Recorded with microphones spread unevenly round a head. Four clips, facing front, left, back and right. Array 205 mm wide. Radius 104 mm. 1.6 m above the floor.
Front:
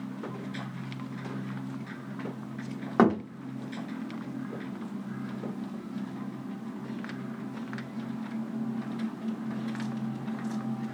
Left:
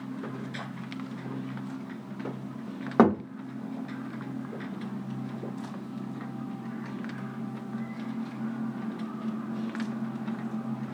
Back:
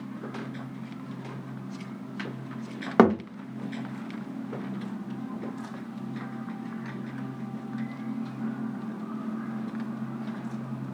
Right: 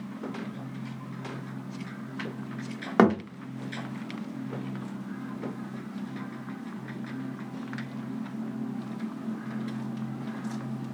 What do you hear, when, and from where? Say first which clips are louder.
3.0 s a thud: even, back 3 dB; 175° left, 1.0 m